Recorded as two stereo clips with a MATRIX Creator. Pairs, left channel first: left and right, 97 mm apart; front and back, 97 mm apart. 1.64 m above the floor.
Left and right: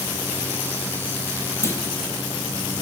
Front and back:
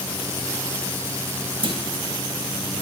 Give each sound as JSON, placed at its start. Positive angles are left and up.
{"t": 1.6, "sound": "a clunk", "azimuth_deg": 150, "distance_m": 3.0}